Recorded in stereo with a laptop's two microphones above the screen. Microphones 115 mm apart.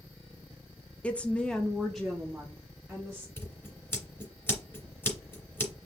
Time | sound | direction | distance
1.0 | a woman speaking | 10° left (ahead or behind) | 0.6 m
3.4 | scissors | 20° left (ahead or behind) | 3 m